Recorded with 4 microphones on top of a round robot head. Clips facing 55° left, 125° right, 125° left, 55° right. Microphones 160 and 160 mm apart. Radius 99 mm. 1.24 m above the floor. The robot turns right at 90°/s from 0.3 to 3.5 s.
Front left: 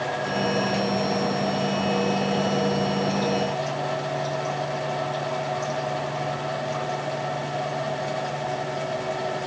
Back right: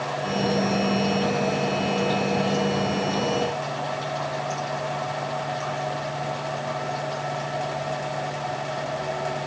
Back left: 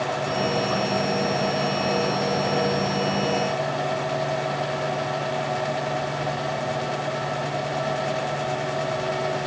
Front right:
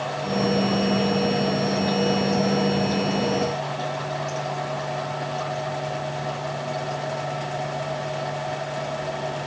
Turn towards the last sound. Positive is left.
No sound to turn to.